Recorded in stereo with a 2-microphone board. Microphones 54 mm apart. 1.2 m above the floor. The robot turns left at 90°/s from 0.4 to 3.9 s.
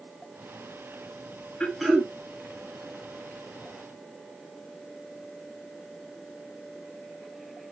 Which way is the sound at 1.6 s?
20° left.